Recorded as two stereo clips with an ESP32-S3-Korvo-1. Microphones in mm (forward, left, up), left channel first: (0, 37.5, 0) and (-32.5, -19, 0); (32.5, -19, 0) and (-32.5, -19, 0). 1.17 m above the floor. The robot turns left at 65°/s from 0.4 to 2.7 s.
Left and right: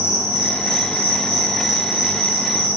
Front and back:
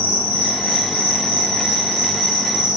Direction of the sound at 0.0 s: 50° left.